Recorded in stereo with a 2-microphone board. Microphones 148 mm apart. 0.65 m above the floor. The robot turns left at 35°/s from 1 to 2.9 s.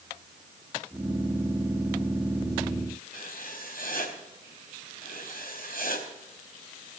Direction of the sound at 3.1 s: 70° left (ahead or behind).